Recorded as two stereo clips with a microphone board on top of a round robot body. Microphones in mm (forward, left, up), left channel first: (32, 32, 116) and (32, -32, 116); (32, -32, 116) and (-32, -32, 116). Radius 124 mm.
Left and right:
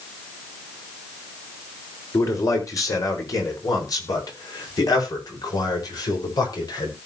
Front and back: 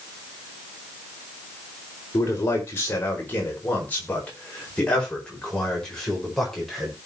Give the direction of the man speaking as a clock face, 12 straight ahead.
10 o'clock.